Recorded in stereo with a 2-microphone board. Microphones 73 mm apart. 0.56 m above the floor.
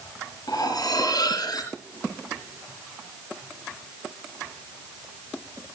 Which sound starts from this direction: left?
Cutlery clinking, at 0.5 s.